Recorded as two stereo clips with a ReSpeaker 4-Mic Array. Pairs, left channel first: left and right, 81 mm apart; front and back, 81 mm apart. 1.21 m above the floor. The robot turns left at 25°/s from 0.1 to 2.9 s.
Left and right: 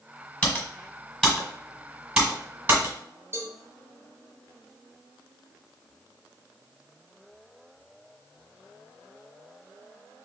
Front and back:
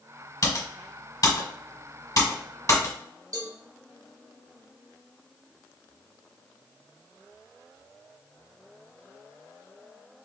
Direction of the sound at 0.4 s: 30° left.